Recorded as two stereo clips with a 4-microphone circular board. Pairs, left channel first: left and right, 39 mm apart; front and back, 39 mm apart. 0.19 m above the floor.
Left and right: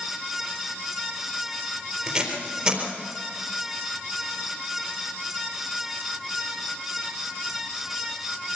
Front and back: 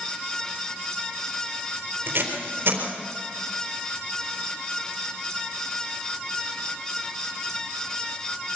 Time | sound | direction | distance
2.1 | tape being pulled | 150° right | 3.5 m